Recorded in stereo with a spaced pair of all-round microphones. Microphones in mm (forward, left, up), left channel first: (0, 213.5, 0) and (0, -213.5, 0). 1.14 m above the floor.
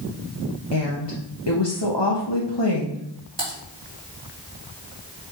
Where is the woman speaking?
70° left (ahead or behind), 1.1 m.